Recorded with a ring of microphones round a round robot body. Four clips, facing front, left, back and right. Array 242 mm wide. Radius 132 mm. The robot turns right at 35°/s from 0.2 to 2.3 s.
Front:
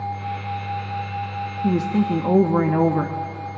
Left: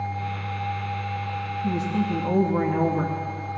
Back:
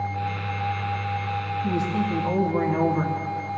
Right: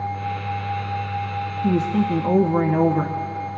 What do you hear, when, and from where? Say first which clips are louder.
1.6 s a woman speaking: right 6 dB, front 6 dB; 50° right, 0.9 m; by 3.2 s 30° right, 0.9 m